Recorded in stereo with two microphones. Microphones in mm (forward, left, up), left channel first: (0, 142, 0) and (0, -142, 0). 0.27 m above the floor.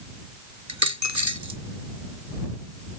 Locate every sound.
0.7 s a dropped coin: 75° right (ahead or behind)